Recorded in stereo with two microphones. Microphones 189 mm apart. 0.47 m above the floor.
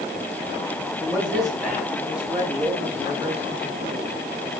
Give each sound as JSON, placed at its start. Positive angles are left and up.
{"t": 1.0, "sound": "a man speaking", "side_deg": 0, "distance_m": 5.5}